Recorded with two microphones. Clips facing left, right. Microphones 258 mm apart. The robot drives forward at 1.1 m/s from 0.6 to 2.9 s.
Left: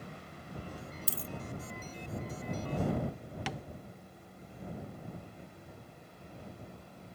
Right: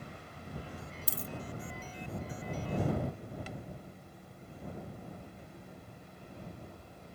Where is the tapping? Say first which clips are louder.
Left 3 dB; 85° left.